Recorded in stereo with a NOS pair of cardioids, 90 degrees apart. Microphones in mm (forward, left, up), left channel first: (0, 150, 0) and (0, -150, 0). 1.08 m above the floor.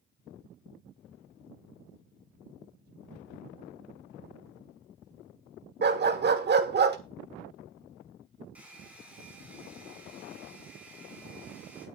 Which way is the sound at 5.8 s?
35° right.